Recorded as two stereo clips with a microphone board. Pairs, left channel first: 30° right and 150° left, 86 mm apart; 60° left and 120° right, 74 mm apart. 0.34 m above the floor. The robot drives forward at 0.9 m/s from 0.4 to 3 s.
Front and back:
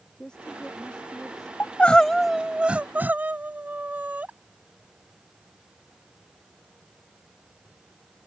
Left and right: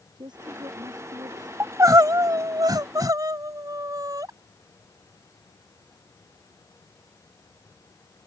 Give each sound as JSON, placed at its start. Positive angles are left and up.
{"t": 0.2, "sound": "a woman speaking", "azimuth_deg": -110}
{"t": 1.6, "sound": "crying", "azimuth_deg": -90}